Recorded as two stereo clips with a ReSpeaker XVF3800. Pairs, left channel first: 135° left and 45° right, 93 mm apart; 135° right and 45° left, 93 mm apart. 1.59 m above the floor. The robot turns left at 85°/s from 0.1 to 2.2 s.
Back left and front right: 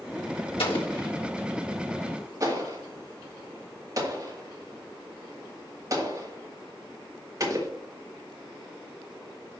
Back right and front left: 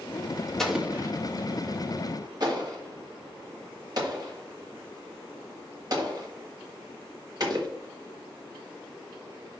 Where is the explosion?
140° left, 1.8 m; by 7.7 s 5° left, 1.8 m.